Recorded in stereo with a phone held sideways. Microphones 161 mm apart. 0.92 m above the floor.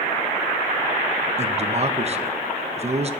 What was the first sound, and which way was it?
A man speaking, 40° right (ahead or behind).